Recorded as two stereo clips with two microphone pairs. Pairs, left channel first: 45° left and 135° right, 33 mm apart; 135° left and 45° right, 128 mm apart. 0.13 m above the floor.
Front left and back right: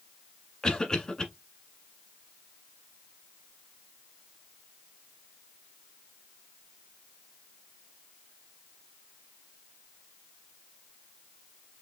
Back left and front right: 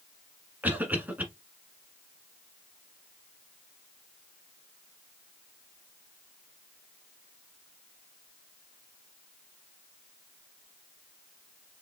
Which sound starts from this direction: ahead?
A cough, at 0.6 s.